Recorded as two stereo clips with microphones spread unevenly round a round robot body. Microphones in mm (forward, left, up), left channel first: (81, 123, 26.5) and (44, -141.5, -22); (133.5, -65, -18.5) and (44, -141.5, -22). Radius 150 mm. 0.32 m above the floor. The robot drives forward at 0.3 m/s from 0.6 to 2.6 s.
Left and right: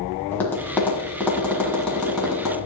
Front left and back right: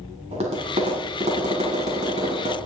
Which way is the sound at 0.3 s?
170° left.